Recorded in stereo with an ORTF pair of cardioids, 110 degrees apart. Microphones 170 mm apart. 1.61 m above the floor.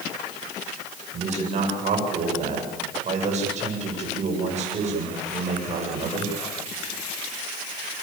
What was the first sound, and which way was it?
A man speaking, 45° right.